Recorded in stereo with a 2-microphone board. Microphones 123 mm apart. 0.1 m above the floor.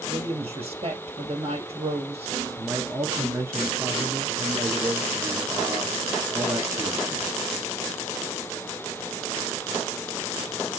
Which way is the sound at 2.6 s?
20° right (ahead or behind).